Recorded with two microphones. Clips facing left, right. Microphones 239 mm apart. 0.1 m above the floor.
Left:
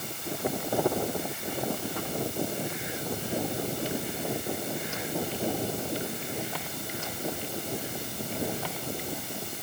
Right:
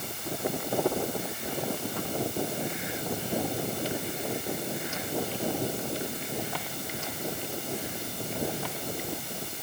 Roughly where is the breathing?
No breathing in this recording.